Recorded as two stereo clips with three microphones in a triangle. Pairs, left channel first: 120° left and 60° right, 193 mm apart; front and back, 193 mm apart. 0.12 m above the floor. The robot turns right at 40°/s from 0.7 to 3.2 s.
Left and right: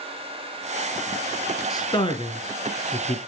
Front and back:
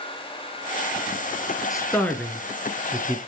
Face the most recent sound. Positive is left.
turn(degrees=120)